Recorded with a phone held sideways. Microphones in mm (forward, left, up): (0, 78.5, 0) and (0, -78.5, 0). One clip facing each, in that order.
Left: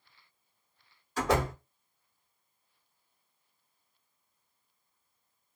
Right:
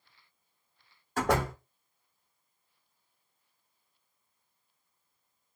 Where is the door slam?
60° right (ahead or behind), 1.4 m.